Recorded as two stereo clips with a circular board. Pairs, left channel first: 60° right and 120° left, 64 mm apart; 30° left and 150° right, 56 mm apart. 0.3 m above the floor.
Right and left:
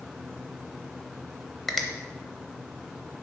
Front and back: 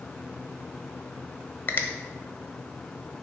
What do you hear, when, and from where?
1.7 s a finger snap: 25° left, 0.8 m